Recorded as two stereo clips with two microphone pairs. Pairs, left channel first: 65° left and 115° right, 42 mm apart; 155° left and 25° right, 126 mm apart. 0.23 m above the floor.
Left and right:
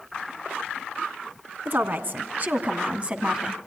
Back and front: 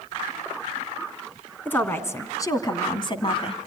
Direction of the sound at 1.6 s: 130° right.